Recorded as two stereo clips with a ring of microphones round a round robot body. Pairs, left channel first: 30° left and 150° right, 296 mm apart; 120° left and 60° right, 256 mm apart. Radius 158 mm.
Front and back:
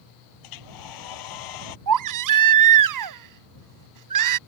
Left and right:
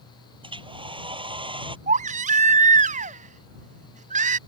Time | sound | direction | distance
0.4 | a hair dryer | 10° left | ?
1.9 | a baby crying | 125° right | ?